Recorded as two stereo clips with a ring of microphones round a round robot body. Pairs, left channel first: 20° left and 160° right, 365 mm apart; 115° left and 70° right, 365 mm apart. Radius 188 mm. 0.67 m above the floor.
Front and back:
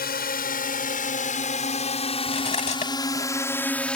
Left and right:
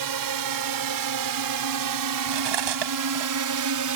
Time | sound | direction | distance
0.0 | a drone | 40° right | ?
2.3 | cutlery clinking | 50° right | ?